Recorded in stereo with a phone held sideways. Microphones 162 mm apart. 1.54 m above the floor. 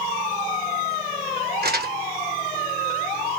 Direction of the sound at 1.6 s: 75° right (ahead or behind).